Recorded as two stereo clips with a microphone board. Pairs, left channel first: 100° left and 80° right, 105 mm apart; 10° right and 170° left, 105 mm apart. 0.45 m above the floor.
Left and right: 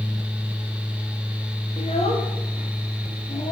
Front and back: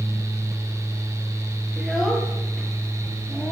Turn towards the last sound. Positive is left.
turn(degrees=75)